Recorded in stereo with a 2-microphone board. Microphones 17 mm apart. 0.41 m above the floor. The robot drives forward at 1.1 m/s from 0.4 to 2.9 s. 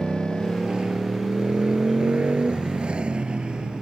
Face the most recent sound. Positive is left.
turn(degrees=-65)  # may be behind; listen again after turning